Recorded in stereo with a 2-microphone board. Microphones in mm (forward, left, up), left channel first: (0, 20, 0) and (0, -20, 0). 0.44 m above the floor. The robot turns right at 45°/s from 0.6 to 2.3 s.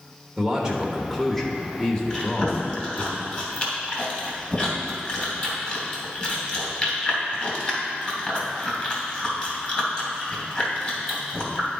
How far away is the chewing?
About 2.5 m.